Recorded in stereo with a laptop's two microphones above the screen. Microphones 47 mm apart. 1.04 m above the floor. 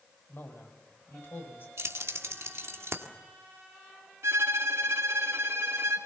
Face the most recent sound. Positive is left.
turn(degrees=-75)  # may be behind; listen again after turning